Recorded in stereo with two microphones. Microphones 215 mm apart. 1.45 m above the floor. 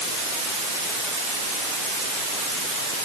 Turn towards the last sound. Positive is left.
No sound to turn to.